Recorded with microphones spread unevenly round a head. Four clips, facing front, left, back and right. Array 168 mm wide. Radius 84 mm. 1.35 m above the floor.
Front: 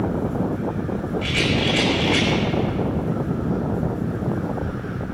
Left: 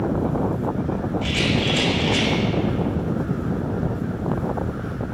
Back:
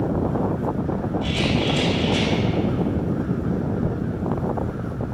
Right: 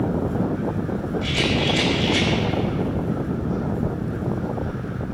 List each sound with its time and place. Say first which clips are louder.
1.2 s a rattle: right 1 dB, even; 25° left, 6.5 m